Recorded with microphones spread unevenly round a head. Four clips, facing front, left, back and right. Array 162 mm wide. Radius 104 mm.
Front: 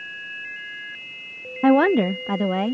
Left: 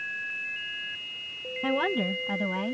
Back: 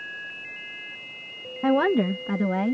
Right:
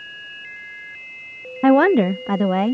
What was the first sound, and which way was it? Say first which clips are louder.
A woman speaking: right 14 dB, front 5 dB; 75° right.